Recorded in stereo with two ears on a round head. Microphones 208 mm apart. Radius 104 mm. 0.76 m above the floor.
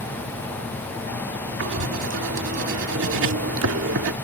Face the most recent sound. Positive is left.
turn(degrees=-60)  # may be behind; listen again after turning